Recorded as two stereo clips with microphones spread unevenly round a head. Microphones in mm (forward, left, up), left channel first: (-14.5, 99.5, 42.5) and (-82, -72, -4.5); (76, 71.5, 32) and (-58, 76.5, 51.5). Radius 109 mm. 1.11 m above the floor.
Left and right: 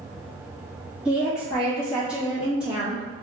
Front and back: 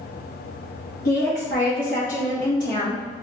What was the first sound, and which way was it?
A woman speaking, 30° right.